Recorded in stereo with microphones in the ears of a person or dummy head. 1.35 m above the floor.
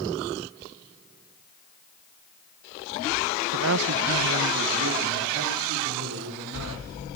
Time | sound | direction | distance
3.5 | a man speaking | 70° right (ahead or behind) | 0.5 m